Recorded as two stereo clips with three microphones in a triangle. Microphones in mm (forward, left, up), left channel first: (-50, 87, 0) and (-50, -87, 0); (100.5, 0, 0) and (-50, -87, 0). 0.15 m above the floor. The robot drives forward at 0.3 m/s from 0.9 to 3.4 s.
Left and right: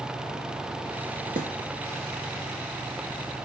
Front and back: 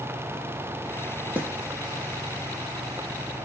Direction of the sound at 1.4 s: 70° right.